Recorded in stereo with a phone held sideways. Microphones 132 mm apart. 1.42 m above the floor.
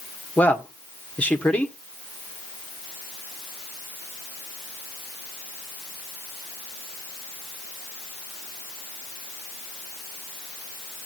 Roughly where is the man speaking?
Centre.